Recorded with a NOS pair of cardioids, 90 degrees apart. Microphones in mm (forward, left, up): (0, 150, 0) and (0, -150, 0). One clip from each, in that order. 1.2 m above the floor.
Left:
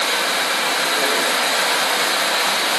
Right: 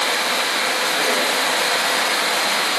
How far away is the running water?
About 2.5 m.